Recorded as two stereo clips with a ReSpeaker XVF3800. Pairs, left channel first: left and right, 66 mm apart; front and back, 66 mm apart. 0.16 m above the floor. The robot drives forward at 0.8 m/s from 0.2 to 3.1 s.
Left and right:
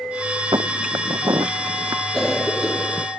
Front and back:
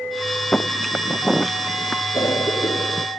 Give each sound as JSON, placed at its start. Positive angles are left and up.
{"t": 0.5, "sound": "footsteps", "azimuth_deg": -75}
{"t": 2.1, "sound": "a cough", "azimuth_deg": 10}